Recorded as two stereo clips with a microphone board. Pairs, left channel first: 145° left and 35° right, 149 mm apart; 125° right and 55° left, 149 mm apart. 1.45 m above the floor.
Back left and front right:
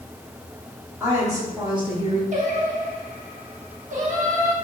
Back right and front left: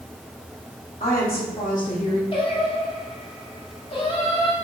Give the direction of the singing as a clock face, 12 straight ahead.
2 o'clock.